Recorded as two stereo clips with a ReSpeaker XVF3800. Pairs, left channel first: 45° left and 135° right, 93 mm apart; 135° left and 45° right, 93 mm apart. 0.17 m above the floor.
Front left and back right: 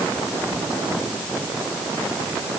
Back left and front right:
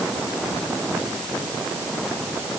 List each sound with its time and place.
Only background noise.